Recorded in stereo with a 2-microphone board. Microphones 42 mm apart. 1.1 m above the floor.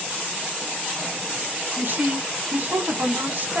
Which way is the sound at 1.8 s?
55° right (ahead or behind).